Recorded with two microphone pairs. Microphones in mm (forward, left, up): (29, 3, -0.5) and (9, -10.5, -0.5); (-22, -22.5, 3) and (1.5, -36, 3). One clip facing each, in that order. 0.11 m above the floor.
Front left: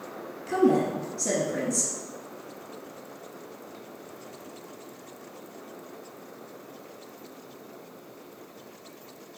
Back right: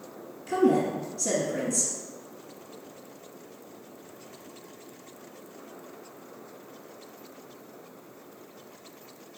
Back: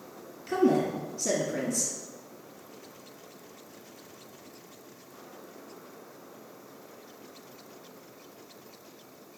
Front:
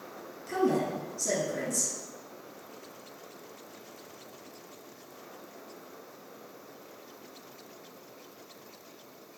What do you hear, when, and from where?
0.5 s a woman speaking: 105° left, 1.5 m